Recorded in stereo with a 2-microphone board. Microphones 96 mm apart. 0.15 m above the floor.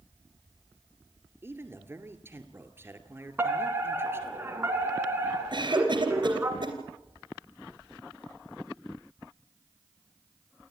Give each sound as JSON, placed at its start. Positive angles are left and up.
{"t": 1.4, "sound": "a man speaking", "side_deg": -25, "distance_m": 2.0}
{"t": 3.4, "sound": "a fire alarm", "side_deg": -20, "distance_m": 2.5}
{"t": 5.5, "sound": "a cough", "side_deg": -50, "distance_m": 3.0}